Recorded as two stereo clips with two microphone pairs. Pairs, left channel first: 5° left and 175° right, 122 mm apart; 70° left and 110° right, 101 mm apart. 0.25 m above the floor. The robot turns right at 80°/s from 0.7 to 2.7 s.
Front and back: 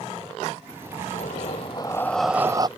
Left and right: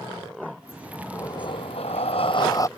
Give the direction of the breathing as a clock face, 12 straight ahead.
12 o'clock.